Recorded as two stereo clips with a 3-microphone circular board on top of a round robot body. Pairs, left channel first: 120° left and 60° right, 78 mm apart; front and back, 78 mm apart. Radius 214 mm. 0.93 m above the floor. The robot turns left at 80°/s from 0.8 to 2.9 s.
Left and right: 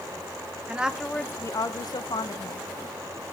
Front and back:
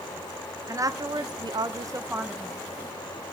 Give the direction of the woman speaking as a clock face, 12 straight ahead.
5 o'clock.